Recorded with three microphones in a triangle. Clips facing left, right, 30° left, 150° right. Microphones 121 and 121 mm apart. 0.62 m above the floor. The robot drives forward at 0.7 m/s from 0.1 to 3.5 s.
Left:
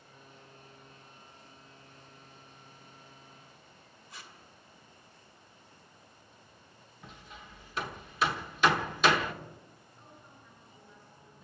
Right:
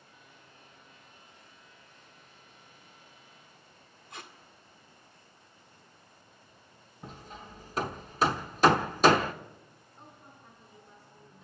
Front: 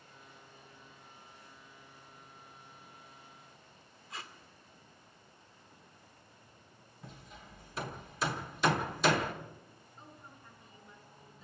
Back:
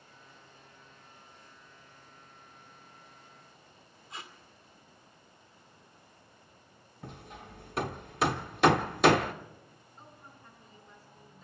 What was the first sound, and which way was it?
Tape being pulled, 90° right.